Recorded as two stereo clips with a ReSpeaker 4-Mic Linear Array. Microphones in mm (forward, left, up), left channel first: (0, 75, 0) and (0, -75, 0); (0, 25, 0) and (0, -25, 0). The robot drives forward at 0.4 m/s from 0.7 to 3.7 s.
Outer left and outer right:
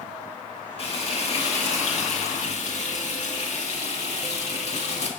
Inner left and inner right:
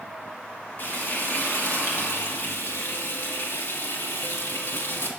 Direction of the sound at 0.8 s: 45° left (ahead or behind).